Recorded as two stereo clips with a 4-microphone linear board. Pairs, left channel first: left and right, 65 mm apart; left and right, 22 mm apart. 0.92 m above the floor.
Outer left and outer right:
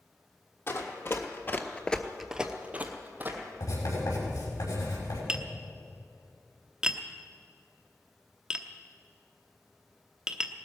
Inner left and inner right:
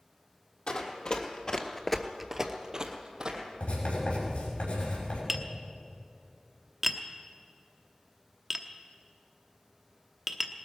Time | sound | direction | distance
0.7 | running footsteps | 40° left (ahead or behind) | 1.9 m
3.6 | writing | 75° left (ahead or behind) | 5.5 m
5.3 | tapping | 10° right (ahead or behind) | 0.9 m